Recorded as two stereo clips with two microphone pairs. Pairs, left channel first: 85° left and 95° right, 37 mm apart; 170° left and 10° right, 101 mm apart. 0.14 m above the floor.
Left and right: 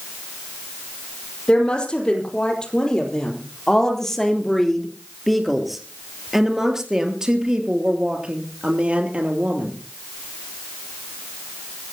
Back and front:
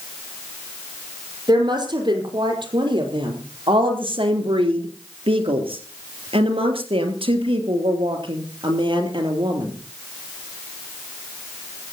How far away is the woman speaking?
About 4.5 m.